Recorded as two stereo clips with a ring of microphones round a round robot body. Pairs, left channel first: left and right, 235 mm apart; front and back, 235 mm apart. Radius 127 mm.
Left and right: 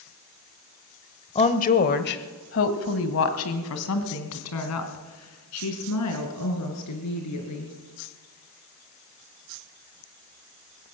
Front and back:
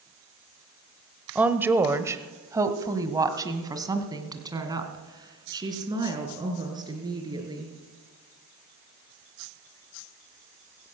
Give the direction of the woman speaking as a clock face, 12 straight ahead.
9 o'clock.